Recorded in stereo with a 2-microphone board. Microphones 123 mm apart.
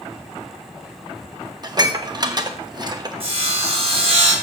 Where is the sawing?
50° right (ahead or behind), 3.5 m.